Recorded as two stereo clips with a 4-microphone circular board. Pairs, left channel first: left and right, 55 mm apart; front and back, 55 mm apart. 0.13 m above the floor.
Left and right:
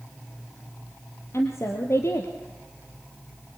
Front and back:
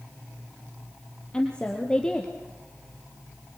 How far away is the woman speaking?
About 3.5 m.